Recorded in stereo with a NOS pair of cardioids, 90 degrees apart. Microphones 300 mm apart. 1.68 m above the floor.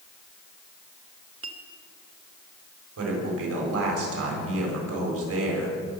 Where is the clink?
50° right, 2.0 m.